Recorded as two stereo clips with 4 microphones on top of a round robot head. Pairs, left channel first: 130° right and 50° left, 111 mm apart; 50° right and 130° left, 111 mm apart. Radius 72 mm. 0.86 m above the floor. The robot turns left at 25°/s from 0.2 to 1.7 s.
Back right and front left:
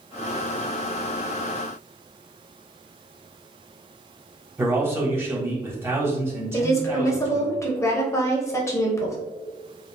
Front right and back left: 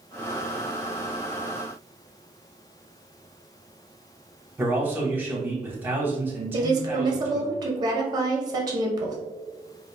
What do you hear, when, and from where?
4.6 s a man speaking: 85° left, 1.0 m
6.5 s a woman speaking: 175° left, 0.7 m